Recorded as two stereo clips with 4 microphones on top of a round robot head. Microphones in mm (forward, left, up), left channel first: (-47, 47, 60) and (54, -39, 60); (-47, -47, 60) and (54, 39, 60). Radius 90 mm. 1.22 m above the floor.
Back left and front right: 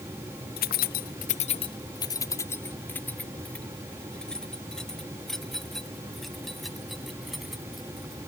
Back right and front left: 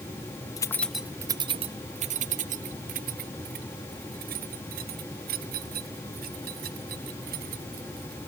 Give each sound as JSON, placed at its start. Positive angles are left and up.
{"t": 0.6, "sound": "keys jangling", "azimuth_deg": 155}